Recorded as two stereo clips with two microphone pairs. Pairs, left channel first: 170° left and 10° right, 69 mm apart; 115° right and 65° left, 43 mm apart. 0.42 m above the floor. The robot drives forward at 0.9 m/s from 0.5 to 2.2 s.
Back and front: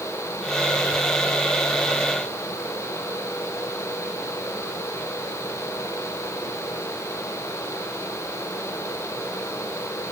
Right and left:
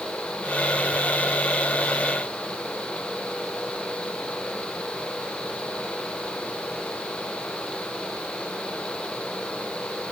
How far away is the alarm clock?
No alarm clock in this recording.